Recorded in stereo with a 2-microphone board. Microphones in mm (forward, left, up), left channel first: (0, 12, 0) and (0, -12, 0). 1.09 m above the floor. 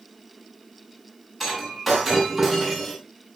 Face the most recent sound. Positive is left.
turn(degrees=10)  # may be behind; listen again after turning